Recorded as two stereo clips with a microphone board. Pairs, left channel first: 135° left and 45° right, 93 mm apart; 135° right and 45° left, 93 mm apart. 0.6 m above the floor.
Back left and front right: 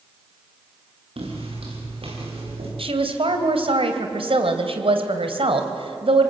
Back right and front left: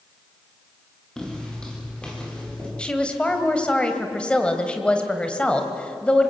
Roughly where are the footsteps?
Ahead right.